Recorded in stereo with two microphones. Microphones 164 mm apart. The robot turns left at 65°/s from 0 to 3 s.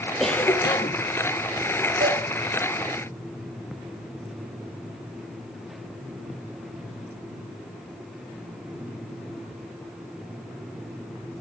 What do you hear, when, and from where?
0.2 s a cough: straight behind, 3.5 m; by 1.0 s 130° left, 3.5 m
2.0 s dishes clattering: 70° right (ahead or behind), 3.5 m; by 2.2 s 60° right (ahead or behind), 3.5 m